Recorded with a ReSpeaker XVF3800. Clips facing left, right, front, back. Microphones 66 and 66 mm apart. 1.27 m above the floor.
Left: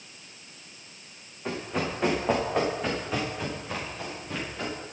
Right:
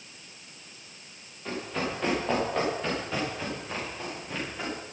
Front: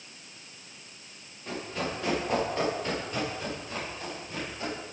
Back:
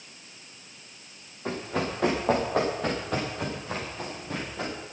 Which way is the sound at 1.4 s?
160° left.